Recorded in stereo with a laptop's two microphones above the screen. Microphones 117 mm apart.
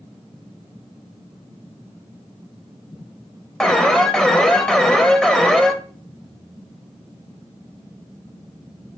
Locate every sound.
3.6 s an alarm: 5° left (ahead or behind), 0.5 m